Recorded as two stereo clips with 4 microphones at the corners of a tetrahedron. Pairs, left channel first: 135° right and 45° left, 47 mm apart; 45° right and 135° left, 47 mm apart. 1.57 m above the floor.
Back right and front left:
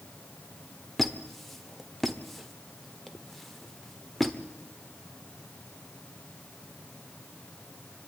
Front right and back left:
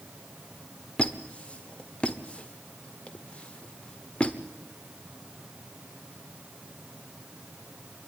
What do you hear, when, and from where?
1.0 s a squeak: 60° right, 1.3 m